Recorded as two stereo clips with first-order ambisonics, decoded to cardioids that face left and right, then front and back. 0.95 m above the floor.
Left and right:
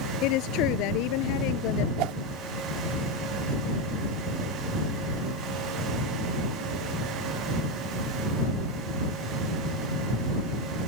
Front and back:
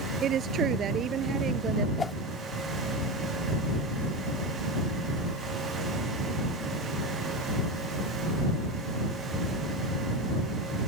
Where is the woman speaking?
120° left; by 1.9 s 115° left.